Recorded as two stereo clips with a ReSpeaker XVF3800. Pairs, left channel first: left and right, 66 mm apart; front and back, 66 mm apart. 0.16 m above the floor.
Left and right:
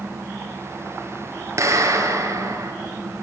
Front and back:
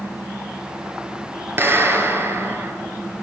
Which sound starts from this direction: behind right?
A clap, at 1.6 s.